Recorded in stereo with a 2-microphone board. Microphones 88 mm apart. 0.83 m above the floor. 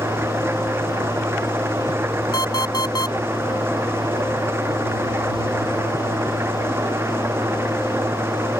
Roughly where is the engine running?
Right.